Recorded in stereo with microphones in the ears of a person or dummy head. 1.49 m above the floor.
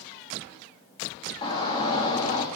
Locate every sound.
1.4 s a shout: 25° left (ahead or behind), 2.5 m